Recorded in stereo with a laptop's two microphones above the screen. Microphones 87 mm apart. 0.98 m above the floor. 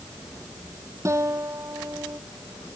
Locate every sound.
1.1 s a guitar: 35° right (ahead or behind)